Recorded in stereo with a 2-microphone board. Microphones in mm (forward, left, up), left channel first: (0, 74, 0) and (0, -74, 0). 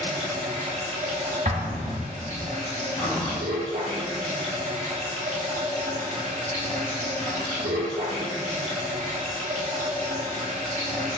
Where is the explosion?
60° right (ahead or behind), 0.8 m.